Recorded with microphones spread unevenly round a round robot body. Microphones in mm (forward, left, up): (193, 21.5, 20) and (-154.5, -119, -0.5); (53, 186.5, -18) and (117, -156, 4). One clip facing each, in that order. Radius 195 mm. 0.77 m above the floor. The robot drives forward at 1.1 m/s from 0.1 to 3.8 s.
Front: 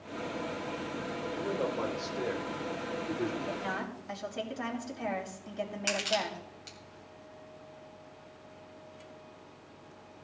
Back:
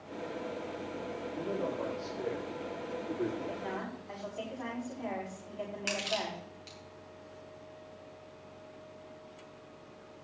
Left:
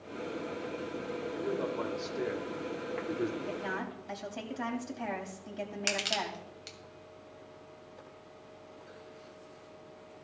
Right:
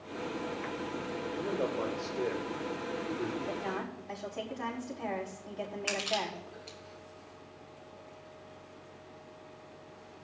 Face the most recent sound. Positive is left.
turn(degrees=100)